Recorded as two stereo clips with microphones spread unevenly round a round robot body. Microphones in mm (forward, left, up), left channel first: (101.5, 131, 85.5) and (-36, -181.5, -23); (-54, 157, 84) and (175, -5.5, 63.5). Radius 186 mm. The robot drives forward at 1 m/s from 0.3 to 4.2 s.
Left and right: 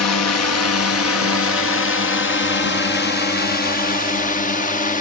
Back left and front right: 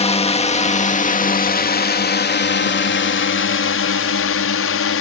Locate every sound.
0.0 s a drone: 95° left; by 5.0 s 145° left